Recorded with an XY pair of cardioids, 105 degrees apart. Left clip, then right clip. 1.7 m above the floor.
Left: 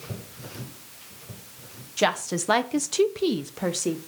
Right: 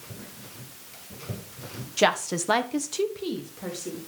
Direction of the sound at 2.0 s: 10° right.